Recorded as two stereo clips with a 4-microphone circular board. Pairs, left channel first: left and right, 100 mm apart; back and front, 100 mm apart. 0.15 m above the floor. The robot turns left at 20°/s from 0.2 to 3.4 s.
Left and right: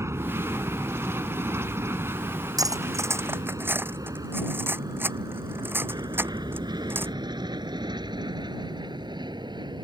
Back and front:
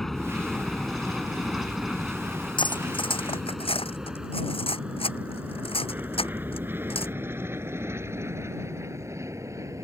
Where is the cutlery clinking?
140° right; by 7.1 s 160° right.